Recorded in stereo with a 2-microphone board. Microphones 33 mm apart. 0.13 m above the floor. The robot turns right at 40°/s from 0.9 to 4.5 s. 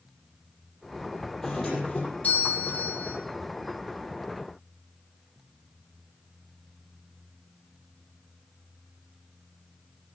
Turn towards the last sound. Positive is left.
turn(degrees=125)